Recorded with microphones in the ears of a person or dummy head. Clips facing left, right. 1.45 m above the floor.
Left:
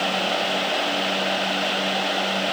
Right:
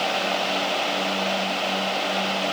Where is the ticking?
I don't hear ticking.